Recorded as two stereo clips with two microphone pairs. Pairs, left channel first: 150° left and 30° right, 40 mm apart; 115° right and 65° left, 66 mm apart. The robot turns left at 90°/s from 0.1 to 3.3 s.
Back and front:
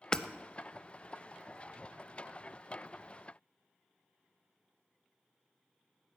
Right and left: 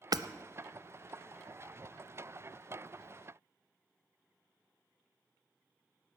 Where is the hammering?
80° left, 0.6 m; by 0.3 s 65° left, 0.6 m.